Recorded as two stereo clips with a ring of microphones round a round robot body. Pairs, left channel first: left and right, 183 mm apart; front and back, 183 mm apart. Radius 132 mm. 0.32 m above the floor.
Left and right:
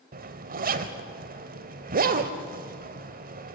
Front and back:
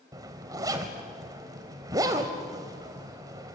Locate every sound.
0.1 s a zipper: 110° right, 1.0 m